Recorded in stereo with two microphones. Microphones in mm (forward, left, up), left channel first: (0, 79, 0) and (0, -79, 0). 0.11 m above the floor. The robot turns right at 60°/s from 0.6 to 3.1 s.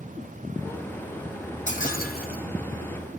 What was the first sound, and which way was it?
Breaking glass, 50° left.